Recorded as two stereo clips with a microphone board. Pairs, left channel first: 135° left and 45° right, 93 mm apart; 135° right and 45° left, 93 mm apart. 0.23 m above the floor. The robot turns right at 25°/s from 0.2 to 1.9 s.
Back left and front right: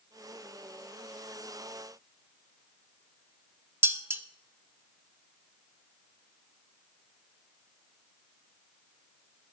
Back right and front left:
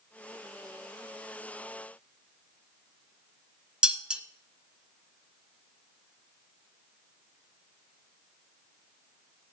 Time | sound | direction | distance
3.8 | dishes clattering | 25° right | 0.8 m